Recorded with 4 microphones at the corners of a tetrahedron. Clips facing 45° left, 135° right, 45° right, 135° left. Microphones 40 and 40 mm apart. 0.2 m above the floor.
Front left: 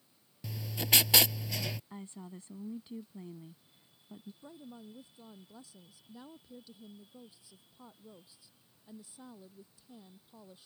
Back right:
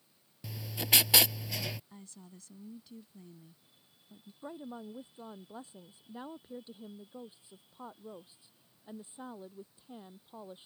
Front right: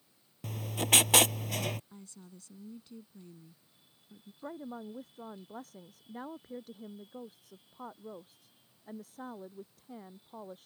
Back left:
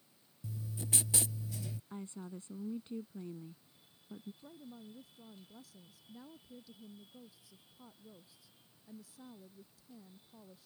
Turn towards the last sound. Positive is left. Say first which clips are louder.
# back right 6 dB, front right 10 dB
turn(degrees=-80)